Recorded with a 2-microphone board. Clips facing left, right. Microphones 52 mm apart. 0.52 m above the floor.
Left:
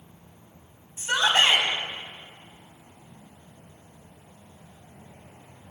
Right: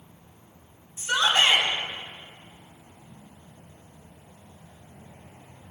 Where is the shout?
35° left (ahead or behind), 4.5 m.